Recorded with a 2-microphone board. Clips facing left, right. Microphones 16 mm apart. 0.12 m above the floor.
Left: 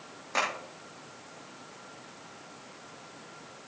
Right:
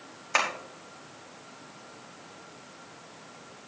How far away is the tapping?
About 4.5 m.